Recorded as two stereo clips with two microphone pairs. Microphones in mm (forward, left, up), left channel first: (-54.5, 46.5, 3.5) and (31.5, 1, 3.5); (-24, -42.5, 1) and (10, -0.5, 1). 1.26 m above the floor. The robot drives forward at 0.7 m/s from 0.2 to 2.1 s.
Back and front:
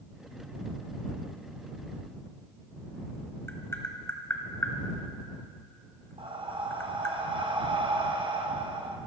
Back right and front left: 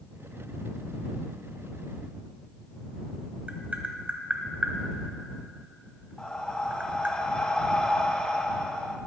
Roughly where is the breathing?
Ahead right.